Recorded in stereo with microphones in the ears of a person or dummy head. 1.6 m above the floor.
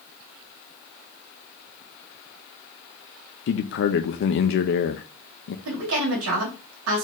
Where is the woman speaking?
75° right (ahead or behind), 2 m.